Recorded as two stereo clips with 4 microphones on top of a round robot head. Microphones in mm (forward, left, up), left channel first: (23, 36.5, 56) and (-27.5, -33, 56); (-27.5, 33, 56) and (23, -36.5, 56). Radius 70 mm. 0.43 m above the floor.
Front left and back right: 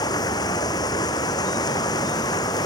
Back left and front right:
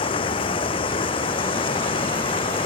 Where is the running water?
100° left.